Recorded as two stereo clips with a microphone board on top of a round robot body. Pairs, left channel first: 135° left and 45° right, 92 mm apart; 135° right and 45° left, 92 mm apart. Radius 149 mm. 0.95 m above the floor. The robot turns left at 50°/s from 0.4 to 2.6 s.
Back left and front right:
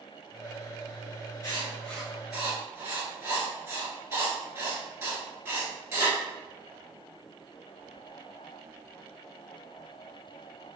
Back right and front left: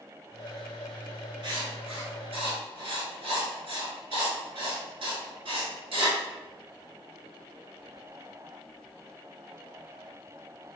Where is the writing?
80° left, 1.8 m; by 6.2 s 25° left, 1.8 m.